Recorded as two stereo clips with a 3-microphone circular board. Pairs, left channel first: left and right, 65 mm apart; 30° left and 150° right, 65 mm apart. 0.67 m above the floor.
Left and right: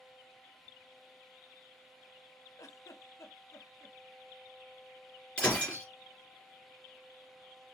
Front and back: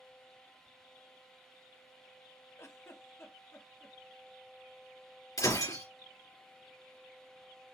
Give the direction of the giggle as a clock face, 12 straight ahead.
10 o'clock.